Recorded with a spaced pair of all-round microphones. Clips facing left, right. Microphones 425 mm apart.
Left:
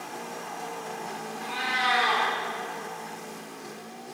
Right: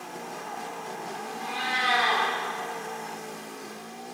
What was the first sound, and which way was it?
A cat meowing, 50° right (ahead or behind).